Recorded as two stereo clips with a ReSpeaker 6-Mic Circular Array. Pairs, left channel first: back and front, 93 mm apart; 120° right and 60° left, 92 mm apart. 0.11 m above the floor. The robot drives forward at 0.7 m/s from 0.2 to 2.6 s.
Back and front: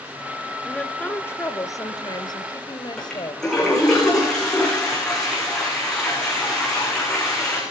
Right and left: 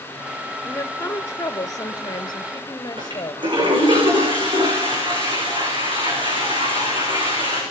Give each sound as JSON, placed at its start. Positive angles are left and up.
{"t": 0.7, "sound": "a woman speaking", "azimuth_deg": -110, "distance_m": 1.3}
{"t": 3.0, "sound": "a toilet flushing", "azimuth_deg": 95, "distance_m": 9.5}